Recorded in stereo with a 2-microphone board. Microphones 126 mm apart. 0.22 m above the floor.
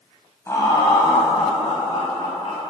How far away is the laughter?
About 1.0 m.